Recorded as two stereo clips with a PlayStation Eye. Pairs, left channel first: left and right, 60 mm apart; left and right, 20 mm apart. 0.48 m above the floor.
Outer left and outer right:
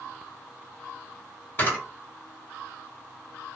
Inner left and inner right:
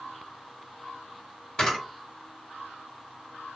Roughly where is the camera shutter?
Left.